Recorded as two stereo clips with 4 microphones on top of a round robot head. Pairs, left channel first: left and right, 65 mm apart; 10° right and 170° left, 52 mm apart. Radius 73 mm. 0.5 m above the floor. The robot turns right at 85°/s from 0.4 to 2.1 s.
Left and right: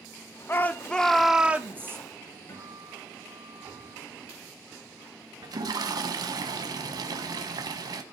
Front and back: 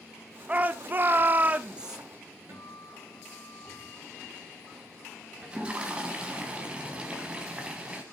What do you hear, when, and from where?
0.5 s a shout: 120° left, 0.8 m; by 2.0 s 110° right, 0.8 m
2.5 s a guitar: 135° left, 8 m
5.4 s a toilet flushing: 115° right, 1.2 m